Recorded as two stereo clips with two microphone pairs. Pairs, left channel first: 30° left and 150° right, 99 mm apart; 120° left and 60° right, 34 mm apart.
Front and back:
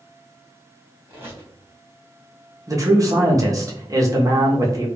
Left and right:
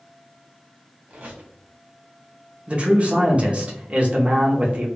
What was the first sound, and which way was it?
A squeak, 90° right.